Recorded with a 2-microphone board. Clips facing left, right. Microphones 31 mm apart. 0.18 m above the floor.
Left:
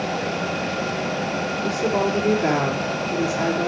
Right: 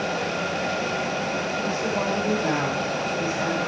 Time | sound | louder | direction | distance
1.6 | a woman speaking | left 6 dB | 60° left (ahead or behind) | 4.5 m